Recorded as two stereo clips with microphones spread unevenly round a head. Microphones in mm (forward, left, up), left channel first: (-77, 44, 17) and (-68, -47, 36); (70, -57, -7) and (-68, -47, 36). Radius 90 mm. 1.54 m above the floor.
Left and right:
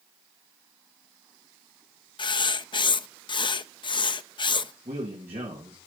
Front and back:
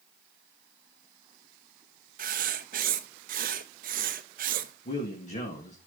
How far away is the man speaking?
About 2.5 m.